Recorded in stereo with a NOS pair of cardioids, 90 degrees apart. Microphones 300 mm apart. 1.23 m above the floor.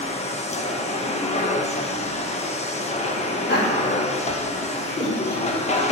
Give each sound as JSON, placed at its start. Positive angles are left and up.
{"t": 0.0, "sound": "a machine running", "azimuth_deg": 25, "distance_m": 1.2}
{"t": 3.5, "sound": "laughter", "azimuth_deg": 35, "distance_m": 4.0}